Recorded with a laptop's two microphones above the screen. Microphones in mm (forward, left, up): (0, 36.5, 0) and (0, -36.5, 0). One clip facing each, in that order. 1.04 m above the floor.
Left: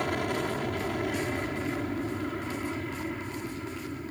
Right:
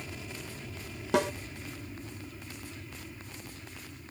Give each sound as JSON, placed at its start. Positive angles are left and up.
{"t": 0.0, "sound": "an aircraft", "side_deg": 60}
{"t": 1.1, "sound": "a snare drum", "side_deg": -85}